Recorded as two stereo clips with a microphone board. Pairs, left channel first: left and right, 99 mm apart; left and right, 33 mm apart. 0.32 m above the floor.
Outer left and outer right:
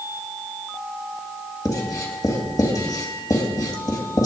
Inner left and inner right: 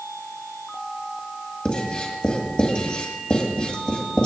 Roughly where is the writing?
Left.